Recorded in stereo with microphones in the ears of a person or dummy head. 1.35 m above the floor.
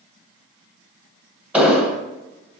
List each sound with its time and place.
1.5 s an explosion: 10° right (ahead or behind), 0.8 m